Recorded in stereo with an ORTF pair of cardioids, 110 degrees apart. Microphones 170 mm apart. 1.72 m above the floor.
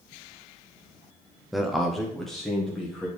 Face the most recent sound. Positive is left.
turn(degrees=5)